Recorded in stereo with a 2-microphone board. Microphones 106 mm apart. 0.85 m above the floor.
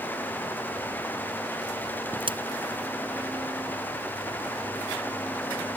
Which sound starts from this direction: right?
A crack, at 2.2 s.